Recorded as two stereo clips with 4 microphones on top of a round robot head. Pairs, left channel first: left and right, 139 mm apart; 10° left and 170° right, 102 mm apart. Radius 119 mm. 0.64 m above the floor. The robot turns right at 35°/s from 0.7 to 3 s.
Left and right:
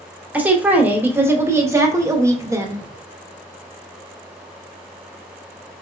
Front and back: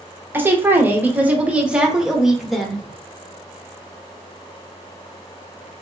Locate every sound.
0.3 s a woman speaking: 145° right, 1.0 m; by 2.9 s 70° right, 1.0 m